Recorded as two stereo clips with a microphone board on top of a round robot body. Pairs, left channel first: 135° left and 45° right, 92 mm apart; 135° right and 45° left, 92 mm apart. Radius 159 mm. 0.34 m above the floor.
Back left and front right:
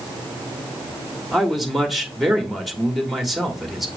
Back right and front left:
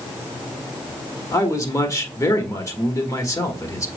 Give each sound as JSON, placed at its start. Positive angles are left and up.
{"t": 1.3, "sound": "a man speaking", "azimuth_deg": -135, "distance_m": 1.5}